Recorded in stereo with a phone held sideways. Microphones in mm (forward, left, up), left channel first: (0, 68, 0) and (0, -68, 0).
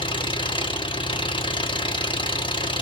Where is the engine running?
40° left (ahead or behind), 1.8 m.